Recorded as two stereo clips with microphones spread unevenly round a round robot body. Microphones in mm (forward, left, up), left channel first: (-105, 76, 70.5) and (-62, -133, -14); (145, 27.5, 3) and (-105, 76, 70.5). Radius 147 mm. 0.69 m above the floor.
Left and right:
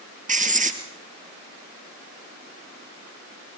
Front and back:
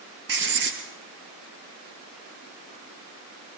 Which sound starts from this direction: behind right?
Writing, at 0.3 s.